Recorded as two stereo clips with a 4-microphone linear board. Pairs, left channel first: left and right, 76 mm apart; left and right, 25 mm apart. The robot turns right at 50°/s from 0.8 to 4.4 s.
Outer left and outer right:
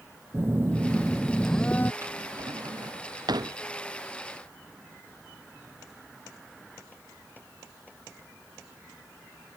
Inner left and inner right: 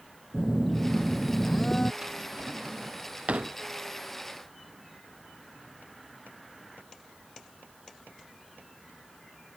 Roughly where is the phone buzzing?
Ahead right.